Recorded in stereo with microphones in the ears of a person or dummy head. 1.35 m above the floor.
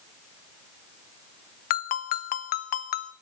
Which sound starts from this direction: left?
A ringtone, at 1.7 s.